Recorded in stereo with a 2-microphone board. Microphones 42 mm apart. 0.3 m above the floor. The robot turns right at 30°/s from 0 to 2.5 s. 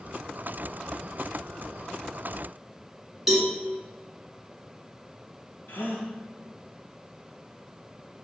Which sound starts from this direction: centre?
A cowbell, at 3.3 s.